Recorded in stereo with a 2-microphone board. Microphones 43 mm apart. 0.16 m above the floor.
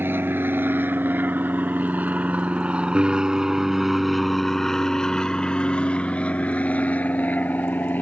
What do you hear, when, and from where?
0.0 s an aircraft: 60° right (ahead or behind); by 8.0 s 45° left (ahead or behind)